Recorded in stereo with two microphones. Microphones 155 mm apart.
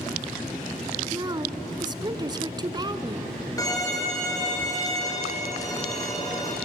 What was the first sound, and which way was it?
A woman speaking, 30° right (ahead or behind).